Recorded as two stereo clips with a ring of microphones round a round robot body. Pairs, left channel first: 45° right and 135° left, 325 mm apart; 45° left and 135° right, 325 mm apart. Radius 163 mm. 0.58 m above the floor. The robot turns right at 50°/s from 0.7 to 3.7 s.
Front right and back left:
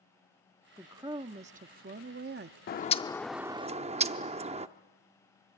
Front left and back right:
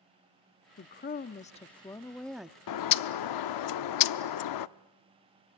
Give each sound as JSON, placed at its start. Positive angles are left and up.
{"t": 0.8, "sound": "a woman speaking", "azimuth_deg": 55, "distance_m": 0.6}
{"t": 2.7, "sound": "a bird", "azimuth_deg": 15, "distance_m": 0.6}